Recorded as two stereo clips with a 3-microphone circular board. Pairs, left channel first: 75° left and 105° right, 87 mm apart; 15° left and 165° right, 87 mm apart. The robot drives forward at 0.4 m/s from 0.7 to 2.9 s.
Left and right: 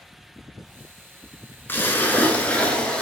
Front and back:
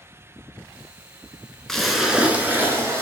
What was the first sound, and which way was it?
A splash, 95° left.